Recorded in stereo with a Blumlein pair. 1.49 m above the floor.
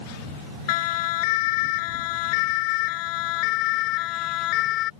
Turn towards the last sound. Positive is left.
turn(degrees=35)